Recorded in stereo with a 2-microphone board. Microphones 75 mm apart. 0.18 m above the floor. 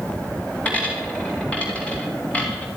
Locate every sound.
0.7 s a dropped coin: 20° left (ahead or behind), 9.5 m